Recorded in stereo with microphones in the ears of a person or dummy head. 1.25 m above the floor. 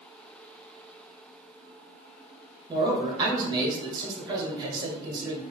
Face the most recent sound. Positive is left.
turn(degrees=-25)  # may be behind; listen again after turning